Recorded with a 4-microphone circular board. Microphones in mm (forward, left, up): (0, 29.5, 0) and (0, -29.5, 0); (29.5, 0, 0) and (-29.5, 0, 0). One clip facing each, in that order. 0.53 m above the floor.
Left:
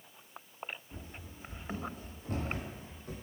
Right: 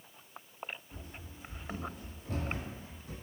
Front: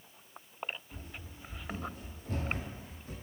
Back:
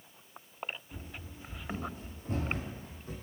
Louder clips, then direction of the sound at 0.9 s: Left 1 dB, back 2 dB; 125° left.